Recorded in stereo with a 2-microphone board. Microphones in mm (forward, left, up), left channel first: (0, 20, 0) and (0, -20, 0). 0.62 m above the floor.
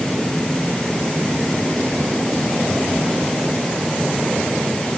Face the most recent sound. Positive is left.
No sound to turn to.